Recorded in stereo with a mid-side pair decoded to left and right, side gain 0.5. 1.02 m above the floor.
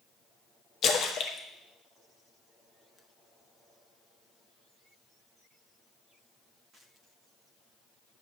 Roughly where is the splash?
Ahead left.